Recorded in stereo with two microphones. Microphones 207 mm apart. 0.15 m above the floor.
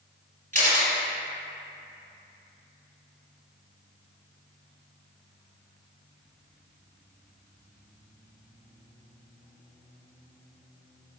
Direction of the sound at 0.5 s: 40° right (ahead or behind).